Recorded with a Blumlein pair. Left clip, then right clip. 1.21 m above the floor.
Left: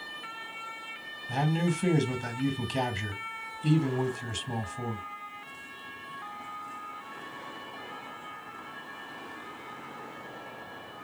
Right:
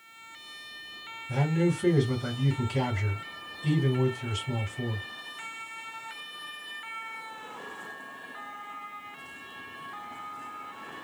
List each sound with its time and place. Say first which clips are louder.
1.3 s a man speaking: right 2 dB; 20° left, 1.5 m